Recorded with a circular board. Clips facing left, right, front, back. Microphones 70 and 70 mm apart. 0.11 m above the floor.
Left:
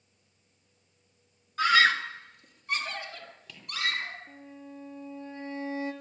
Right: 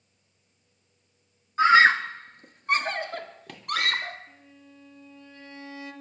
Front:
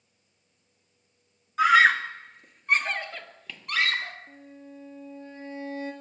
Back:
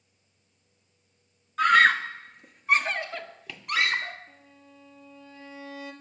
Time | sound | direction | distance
1.6 | a scream | 75° right | 1.2 m
4.3 | a violin | 40° left | 2.5 m